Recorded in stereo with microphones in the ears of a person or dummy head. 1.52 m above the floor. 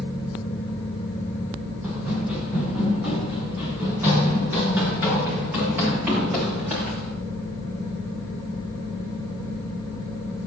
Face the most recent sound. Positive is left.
turn(degrees=-10)  # may be behind; listen again after turning